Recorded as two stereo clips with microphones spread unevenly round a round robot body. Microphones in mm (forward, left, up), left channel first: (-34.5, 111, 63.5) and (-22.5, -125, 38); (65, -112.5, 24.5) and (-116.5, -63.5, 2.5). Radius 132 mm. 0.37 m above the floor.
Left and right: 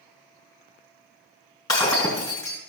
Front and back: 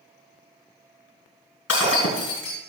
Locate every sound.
1.7 s breaking glass: 15° left, 3 m